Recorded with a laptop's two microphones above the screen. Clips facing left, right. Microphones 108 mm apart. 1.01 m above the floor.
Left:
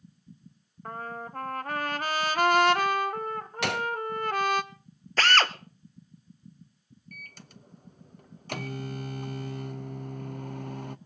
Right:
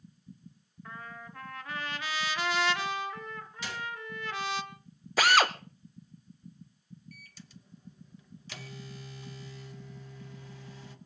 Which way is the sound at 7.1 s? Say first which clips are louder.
Left 3 dB; 55° left (ahead or behind).